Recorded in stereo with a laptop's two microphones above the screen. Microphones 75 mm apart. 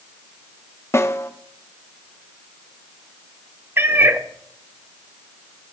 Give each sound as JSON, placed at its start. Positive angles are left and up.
{"t": 0.9, "sound": "a snare drum", "side_deg": 35, "distance_m": 0.7}
{"t": 3.8, "sound": "a cat meowing", "side_deg": -30, "distance_m": 0.6}